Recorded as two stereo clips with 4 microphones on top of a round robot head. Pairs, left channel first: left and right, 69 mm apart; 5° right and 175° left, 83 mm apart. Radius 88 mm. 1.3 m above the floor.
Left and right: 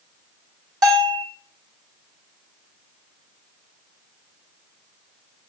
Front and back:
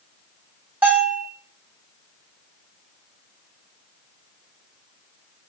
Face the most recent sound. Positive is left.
turn(degrees=-110)